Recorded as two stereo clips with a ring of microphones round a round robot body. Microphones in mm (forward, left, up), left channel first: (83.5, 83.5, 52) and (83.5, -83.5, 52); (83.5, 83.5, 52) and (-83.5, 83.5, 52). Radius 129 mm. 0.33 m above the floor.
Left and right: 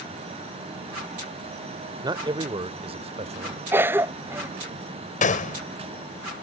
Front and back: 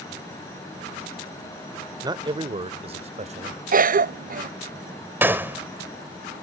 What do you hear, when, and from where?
2.0 s a man speaking: 135° right
3.7 s a cough: 165° right
5.2 s a gunshot: 105° left